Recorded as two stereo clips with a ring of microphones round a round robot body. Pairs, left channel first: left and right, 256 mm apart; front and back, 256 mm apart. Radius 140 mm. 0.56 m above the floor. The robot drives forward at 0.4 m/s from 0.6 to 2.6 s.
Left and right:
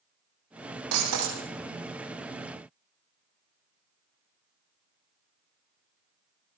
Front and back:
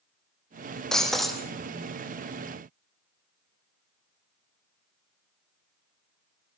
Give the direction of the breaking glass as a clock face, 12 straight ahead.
3 o'clock.